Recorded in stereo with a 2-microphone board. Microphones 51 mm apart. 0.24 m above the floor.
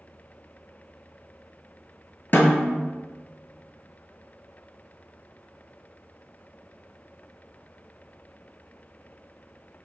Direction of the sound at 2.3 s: 45° left (ahead or behind).